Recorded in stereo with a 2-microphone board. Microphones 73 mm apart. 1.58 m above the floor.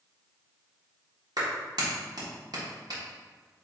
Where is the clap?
65° right (ahead or behind), 1.3 m.